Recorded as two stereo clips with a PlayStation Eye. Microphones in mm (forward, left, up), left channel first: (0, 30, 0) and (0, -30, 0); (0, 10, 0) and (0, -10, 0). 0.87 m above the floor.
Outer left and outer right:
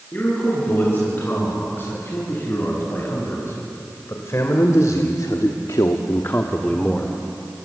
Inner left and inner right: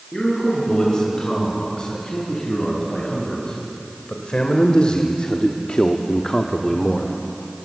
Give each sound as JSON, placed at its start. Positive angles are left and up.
{"t": 0.1, "sound": "a man speaking", "side_deg": 35, "distance_m": 9.0}